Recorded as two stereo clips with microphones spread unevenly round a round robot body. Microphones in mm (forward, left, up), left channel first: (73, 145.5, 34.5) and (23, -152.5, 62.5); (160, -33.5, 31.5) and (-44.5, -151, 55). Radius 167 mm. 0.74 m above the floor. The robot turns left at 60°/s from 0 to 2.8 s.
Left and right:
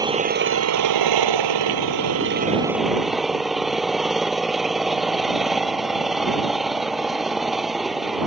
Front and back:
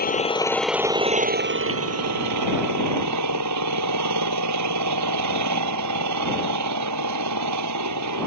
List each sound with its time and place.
0.0 s an engine running: 20° right; by 8.3 s 170° left